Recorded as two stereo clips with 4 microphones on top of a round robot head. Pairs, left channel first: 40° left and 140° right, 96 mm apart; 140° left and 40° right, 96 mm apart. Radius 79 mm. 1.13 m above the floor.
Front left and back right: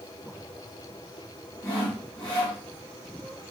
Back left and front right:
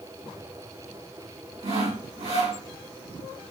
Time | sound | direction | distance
1.6 | sawing | 20° right | 2.5 m